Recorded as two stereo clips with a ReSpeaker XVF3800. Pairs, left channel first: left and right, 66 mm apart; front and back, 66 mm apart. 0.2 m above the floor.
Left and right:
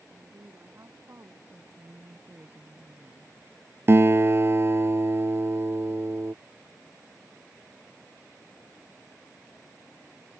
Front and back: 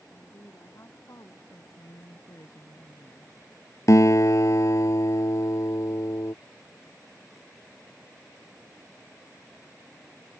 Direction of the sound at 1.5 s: 30° right.